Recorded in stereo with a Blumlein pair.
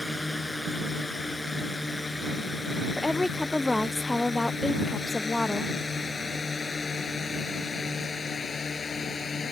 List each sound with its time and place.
0.0 s a drone: 5° left; by 9.5 s 20° left
3.0 s a woman speaking: 10° left